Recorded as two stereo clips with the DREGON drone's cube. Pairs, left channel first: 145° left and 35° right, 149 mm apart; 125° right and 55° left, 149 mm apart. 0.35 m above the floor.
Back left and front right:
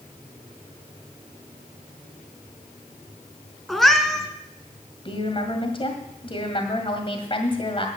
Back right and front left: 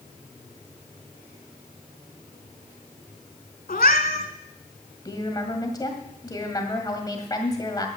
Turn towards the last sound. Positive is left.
turn(degrees=180)